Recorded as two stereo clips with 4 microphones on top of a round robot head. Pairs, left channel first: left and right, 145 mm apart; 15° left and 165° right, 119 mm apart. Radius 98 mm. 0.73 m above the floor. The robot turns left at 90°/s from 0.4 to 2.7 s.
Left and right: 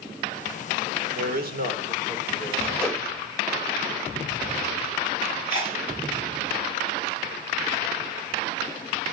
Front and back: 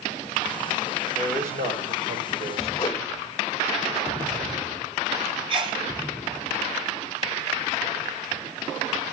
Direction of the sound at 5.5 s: 150° left.